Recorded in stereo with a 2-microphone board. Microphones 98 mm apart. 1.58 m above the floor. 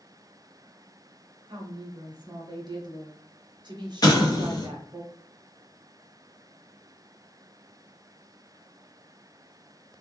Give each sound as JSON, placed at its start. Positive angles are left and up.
{"t": 1.5, "sound": "a woman speaking", "side_deg": -45, "distance_m": 0.7}
{"t": 4.0, "sound": "an explosion", "side_deg": 40, "distance_m": 0.7}